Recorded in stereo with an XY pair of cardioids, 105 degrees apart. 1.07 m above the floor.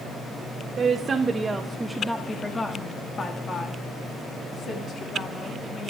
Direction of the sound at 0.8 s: 45° right.